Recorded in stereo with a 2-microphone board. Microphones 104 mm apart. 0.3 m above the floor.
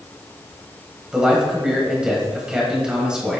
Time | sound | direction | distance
1.1 | a man speaking | 10° right (ahead or behind) | 1.4 m